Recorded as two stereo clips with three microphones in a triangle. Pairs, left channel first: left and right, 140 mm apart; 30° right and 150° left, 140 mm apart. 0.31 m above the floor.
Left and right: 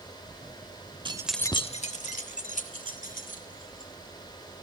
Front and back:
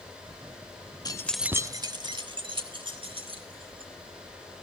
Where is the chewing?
No chewing in this recording.